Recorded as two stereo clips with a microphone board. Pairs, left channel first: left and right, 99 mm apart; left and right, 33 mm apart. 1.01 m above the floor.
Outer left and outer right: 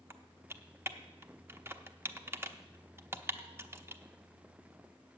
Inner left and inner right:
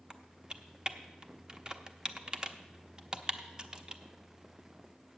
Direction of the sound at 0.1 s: 25° right (ahead or behind).